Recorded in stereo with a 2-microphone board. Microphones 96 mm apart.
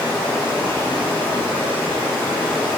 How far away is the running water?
About 0.9 m.